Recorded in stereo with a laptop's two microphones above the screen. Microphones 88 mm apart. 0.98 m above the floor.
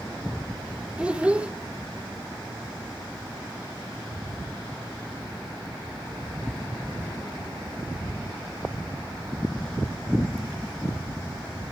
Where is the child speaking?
15° right (ahead or behind), 0.6 m.